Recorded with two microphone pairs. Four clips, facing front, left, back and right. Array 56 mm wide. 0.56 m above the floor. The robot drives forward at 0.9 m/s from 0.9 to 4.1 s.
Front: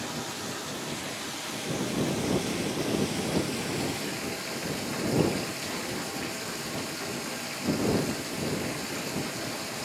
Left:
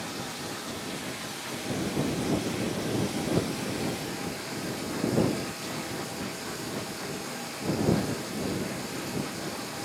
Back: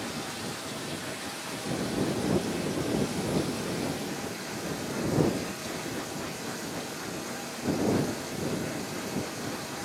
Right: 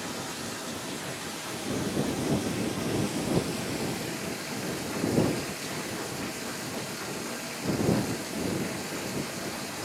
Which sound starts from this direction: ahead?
Running water, at 0.0 s.